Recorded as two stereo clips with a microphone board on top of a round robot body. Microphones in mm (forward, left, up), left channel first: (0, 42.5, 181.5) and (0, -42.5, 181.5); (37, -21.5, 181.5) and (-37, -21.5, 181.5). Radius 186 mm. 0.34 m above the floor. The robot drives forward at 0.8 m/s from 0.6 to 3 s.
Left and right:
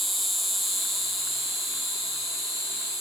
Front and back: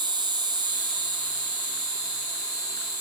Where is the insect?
Straight behind, 1.7 m.